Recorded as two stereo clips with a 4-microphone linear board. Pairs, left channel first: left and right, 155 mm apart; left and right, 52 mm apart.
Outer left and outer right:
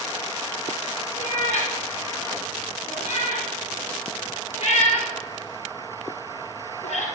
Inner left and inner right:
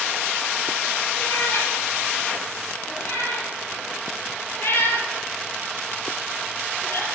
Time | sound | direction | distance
1.2 | a cat meowing | 45° left (ahead or behind) | 3 m